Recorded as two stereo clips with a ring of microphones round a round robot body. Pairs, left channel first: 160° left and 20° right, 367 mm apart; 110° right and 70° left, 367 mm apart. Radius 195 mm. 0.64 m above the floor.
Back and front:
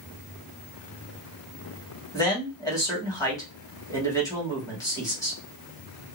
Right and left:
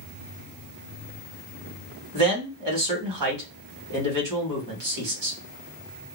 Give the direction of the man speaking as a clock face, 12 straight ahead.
9 o'clock.